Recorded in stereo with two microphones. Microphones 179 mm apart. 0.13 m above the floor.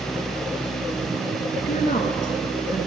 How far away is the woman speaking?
About 1.4 m.